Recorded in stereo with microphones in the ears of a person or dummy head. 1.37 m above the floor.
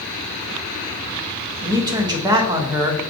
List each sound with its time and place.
1.6 s a man speaking: 20° right (ahead or behind), 0.6 m